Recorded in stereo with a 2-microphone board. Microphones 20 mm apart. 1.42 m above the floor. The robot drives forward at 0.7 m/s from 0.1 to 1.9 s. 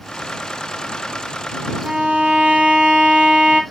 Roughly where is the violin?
Right.